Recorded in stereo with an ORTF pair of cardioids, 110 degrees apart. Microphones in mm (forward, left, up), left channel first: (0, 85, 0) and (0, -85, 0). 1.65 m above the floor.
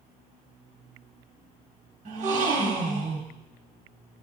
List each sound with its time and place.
2.0 s a gasp: 50° right, 1.7 m